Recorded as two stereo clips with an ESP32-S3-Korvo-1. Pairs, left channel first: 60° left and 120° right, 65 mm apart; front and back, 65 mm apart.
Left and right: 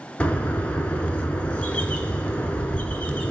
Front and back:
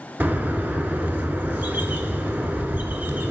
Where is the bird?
125° left, 0.7 m.